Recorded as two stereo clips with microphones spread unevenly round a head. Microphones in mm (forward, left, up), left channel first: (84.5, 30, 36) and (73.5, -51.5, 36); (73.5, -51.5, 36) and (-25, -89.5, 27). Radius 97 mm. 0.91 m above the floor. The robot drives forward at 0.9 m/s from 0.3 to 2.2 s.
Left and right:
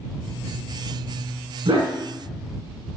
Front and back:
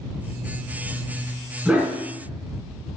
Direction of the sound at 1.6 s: 80° right.